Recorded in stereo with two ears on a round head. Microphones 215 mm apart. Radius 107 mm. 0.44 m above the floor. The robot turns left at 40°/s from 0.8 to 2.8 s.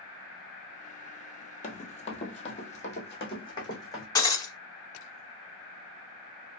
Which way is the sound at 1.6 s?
35° left (ahead or behind).